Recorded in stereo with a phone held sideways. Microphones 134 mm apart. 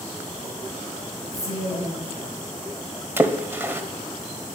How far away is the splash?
About 1.2 m.